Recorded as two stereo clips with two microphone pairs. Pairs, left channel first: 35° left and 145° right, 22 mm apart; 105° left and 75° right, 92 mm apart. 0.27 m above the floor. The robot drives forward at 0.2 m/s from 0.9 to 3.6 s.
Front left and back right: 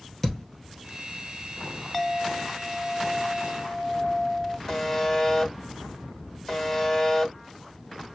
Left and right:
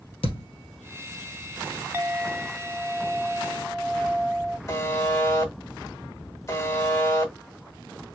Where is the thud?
110° left, 1.8 m.